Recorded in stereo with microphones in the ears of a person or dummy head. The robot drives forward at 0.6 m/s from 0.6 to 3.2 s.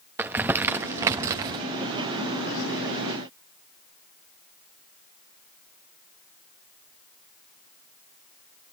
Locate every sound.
0.2 s crumpling: 15° right (ahead or behind), 1.3 m; by 1.6 s 20° right (ahead or behind), 1.0 m